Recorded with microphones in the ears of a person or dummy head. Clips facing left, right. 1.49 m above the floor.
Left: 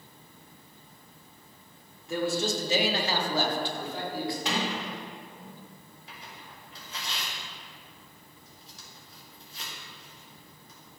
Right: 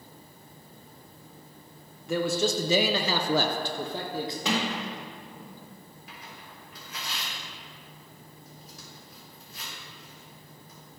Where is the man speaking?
50° right (ahead or behind), 1.0 m; by 4.3 s 25° right (ahead or behind), 1.1 m.